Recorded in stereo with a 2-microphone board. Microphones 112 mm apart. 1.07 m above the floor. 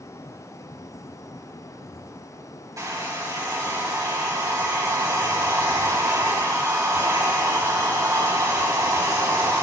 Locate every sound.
2.8 s a hair dryer: 30° right (ahead or behind), 2.5 m